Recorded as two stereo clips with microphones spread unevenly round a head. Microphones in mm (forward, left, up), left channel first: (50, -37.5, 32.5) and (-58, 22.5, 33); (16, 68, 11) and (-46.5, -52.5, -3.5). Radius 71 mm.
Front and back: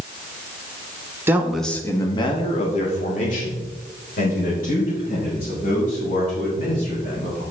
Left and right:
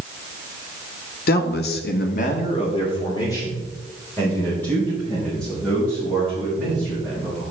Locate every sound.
1.3 s a man speaking: 80° left, 1.3 m; by 7.4 s 25° right, 7.5 m